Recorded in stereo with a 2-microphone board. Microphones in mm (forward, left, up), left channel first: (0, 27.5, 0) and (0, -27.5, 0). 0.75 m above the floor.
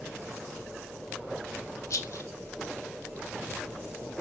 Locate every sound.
1.9 s a rattle: 70° left (ahead or behind), 1.5 m